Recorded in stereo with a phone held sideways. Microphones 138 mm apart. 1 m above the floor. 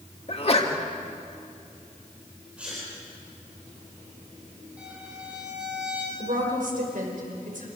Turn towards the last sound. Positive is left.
turn(degrees=-75)  # may be behind; listen again after turning